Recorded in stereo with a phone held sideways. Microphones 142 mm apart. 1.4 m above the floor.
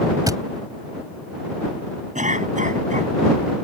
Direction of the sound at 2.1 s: 60° right (ahead or behind).